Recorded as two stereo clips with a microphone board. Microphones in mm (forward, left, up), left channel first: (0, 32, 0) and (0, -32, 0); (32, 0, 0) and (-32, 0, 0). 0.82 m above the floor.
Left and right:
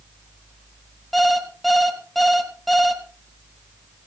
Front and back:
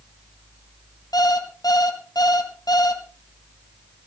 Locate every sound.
1.1 s an alarm clock: straight ahead, 2.5 m